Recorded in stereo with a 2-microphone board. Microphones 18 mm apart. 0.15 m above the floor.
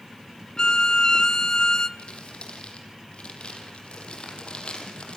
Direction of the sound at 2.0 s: 55° left (ahead or behind).